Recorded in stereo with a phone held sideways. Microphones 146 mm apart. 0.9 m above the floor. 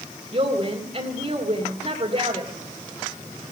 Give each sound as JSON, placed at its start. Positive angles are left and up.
{"t": 0.3, "sound": "a woman speaking", "side_deg": -45, "distance_m": 2.5}